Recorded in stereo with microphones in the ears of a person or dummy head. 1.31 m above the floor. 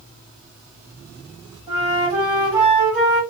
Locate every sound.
1.7 s a flute: 25° right (ahead or behind), 1.5 m